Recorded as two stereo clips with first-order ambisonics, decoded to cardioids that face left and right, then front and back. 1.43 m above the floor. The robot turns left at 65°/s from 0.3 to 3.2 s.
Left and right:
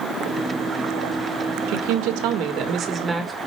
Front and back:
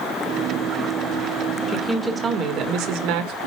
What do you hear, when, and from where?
1.7 s a woman speaking: 75° right, 1.6 m; by 3.4 s 175° right, 1.6 m